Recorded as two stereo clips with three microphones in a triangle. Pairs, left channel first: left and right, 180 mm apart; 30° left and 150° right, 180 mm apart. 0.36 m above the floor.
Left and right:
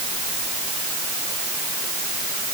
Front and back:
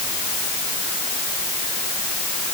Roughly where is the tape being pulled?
I don't hear tape being pulled.